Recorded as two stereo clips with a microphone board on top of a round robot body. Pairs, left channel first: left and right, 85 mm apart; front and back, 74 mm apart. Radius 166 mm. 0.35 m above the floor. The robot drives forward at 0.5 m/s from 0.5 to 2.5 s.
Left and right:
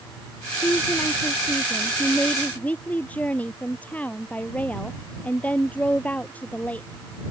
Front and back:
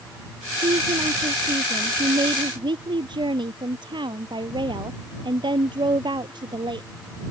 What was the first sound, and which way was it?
A woman speaking, 160° left.